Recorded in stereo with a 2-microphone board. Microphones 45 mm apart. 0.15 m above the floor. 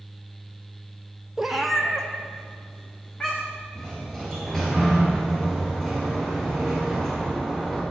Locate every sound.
1.4 s a cat meowing: 15° right (ahead or behind), 0.5 m; by 3.6 s 20° left (ahead or behind), 3 m
3.8 s a sliding door: 10° left (ahead or behind), 3 m